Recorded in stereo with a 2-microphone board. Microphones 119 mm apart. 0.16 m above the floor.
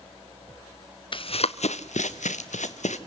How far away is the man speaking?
No man speaking in this recording.